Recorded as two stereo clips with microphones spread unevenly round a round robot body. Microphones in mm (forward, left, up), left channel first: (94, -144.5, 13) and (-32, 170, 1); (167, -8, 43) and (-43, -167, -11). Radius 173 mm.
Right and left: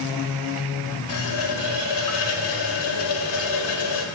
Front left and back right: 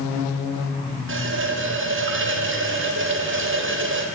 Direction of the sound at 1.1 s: 100° right.